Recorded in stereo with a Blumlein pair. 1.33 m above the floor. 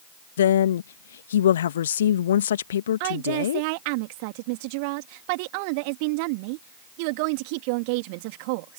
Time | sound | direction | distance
0.4 | a woman speaking | 65° left | ?
3.0 | a woman speaking | 45° right | ?